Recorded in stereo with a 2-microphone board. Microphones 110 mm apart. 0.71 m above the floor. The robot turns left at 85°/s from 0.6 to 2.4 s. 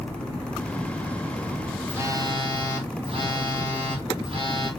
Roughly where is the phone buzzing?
Ahead.